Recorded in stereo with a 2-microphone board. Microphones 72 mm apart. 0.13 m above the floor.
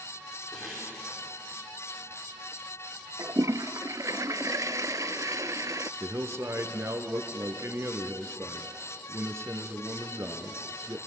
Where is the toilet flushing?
55° right (ahead or behind), 0.5 m.